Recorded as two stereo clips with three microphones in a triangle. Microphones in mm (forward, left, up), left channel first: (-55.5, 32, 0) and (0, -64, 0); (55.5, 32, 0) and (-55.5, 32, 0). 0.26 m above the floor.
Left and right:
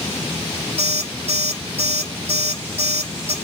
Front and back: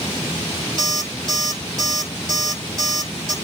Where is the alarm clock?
85° right, 5 m.